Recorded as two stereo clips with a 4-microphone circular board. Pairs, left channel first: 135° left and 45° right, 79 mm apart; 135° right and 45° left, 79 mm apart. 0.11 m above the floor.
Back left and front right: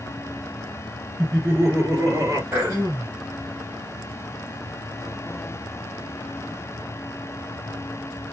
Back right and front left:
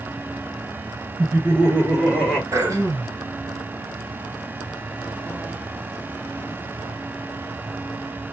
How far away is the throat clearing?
About 2.5 m.